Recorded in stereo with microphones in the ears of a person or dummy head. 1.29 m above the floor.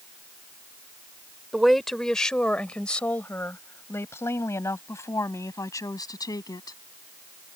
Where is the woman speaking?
5° right (ahead or behind); by 6.8 s 20° left (ahead or behind).